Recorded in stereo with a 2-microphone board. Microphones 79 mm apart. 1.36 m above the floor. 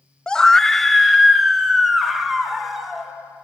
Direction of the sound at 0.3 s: 10° left (ahead or behind).